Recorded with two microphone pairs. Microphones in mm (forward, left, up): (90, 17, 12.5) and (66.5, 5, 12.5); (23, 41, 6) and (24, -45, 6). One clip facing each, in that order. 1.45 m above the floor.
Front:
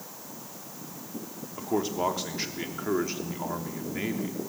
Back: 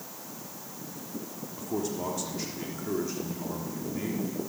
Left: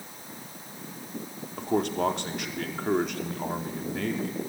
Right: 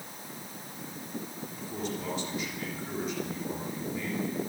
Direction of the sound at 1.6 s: 65° left.